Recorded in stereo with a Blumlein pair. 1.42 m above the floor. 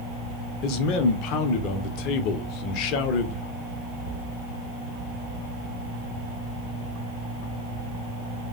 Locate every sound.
0.6 s a man speaking: 40° left, 0.6 m